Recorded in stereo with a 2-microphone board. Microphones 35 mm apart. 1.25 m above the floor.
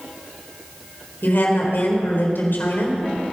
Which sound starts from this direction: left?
A woman speaking, at 1.2 s.